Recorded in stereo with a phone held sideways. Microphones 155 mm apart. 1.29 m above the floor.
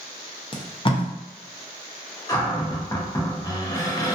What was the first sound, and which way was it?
Tape being pulled, 35° left (ahead or behind).